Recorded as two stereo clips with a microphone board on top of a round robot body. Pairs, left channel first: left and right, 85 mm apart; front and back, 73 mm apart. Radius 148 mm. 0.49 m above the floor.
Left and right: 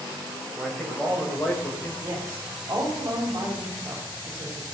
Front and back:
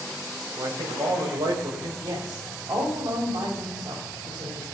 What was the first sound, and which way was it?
A man speaking, 175° left.